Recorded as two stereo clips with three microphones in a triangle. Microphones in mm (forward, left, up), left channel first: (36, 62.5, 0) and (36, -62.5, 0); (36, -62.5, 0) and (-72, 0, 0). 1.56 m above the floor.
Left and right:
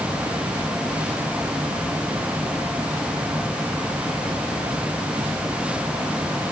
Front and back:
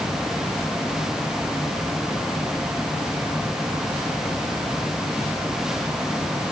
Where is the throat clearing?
No throat clearing in this recording.